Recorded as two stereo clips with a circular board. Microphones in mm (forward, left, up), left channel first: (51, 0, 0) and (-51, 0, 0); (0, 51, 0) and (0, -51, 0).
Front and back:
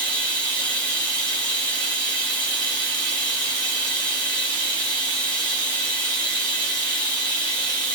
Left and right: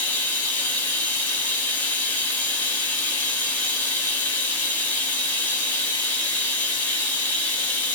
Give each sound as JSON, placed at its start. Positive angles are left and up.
{"t": 0.0, "sound": "running water", "azimuth_deg": 50, "distance_m": 1.2}